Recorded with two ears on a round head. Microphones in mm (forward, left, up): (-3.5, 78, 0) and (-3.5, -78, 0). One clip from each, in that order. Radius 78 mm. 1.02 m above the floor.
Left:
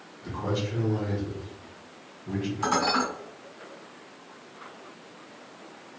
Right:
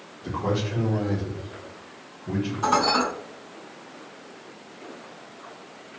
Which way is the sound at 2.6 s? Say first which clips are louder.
Right 4 dB; 45° left (ahead or behind).